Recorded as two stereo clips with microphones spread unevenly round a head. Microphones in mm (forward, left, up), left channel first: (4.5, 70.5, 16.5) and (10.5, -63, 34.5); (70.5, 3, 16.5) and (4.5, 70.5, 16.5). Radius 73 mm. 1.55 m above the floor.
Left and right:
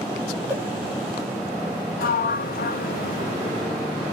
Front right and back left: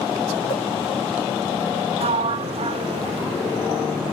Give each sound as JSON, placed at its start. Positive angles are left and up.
{"t": 0.5, "sound": "a whoosh", "azimuth_deg": -15, "distance_m": 4.0}
{"t": 2.0, "sound": "a sliding door", "azimuth_deg": 115, "distance_m": 0.8}